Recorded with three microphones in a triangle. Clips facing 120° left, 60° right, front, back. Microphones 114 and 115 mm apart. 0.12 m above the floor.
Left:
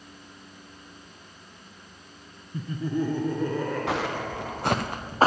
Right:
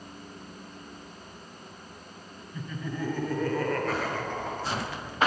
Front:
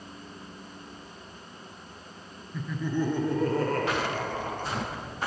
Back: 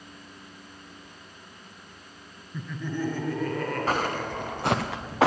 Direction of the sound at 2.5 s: 95° left.